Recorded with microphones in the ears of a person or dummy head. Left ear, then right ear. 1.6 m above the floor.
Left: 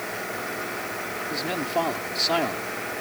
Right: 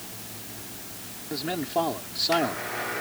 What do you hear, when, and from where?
1.3 s a man speaking: 20° left (ahead or behind)